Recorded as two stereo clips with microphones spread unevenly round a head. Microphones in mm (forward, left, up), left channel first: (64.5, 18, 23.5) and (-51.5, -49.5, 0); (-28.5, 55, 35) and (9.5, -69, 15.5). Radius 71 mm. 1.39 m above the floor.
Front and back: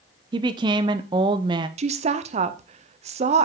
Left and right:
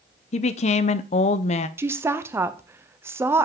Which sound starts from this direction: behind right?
A woman speaking, at 1.8 s.